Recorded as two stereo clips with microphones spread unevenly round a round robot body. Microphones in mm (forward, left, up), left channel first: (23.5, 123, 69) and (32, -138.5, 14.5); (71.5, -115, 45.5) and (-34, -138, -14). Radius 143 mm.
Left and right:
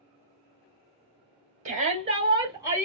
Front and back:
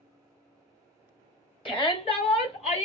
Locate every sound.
1.6 s a shout: 50° right, 1.9 m; by 2.9 s 25° right, 1.7 m